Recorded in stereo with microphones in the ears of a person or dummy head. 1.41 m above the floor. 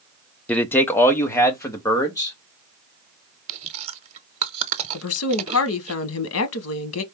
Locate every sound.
0.5 s a man speaking: 10° left (ahead or behind), 0.6 m; by 2.4 s 15° left (ahead or behind), 1.6 m
3.5 s chewing: 30° right (ahead or behind), 0.7 m
4.9 s a woman speaking: 75° left (ahead or behind), 1.0 m